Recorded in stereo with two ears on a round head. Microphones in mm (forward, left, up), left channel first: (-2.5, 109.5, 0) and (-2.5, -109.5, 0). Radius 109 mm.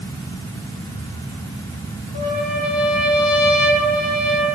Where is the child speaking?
I don't hear a child speaking.